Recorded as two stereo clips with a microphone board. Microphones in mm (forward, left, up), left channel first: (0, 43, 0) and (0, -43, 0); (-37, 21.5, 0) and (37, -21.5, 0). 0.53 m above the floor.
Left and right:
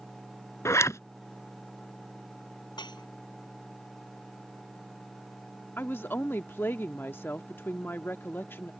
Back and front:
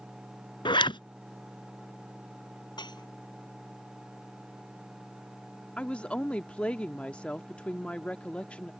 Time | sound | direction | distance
0.7 | a zipper | 145° left | ?
2.8 | dishes clattering | 120° left | ?
5.8 | a woman speaking | 90° left | ?